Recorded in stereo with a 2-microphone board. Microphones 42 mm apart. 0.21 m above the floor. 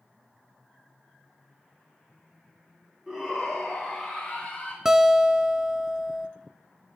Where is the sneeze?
I don't hear a sneeze.